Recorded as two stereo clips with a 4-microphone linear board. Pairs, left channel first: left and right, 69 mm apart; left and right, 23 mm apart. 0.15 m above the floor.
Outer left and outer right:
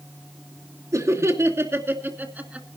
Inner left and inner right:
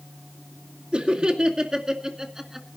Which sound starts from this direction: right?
Laughter, at 0.9 s.